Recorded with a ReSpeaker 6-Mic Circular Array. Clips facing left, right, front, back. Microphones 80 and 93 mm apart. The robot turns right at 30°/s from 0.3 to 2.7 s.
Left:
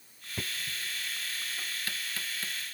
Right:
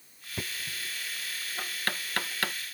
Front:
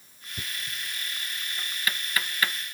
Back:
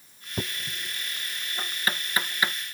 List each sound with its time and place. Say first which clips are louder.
0.4 s knocking: even, back 4 dB; 170° right; by 2.5 s 105° right